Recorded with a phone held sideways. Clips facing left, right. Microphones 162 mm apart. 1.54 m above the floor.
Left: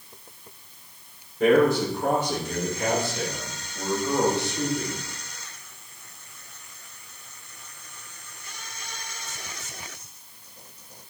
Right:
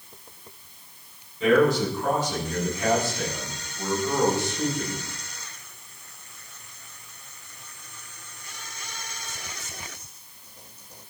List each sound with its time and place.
1.4 s a man speaking: 55° left (ahead or behind), 5.5 m; by 5.0 s 65° left (ahead or behind), 7.5 m